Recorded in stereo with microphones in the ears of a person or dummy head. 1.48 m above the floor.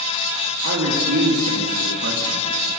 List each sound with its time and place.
0.6 s a man speaking: 75° right (ahead or behind), 2.5 m; by 2.5 s 60° right (ahead or behind), 1.9 m